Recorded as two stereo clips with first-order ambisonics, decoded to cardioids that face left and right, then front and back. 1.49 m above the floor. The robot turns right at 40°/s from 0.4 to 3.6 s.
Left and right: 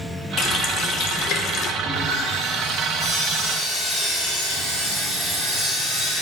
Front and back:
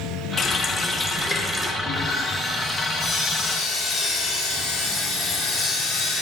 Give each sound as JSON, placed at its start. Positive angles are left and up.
{"t": 0.4, "sound": "a running tap", "azimuth_deg": 65, "distance_m": 0.9}
{"t": 1.8, "sound": "sawing", "azimuth_deg": -110, "distance_m": 3.5}